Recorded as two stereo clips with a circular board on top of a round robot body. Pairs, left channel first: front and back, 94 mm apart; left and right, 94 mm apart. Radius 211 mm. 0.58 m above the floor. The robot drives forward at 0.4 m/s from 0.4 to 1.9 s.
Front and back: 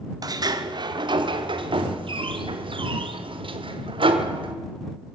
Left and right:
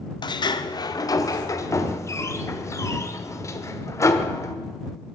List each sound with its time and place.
0.2 s a sliding door: 130° left, 0.9 m; by 4.5 s 150° left, 1.4 m